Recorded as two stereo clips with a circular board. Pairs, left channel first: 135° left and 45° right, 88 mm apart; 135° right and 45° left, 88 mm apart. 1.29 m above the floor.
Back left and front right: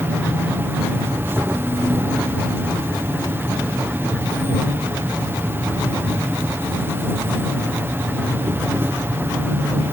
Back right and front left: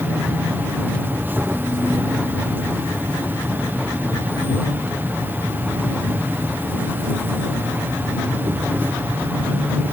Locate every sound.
0.0 s an insect: 5° right